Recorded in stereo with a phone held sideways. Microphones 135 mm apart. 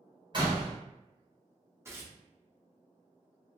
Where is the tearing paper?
20° right (ahead or behind), 0.7 m.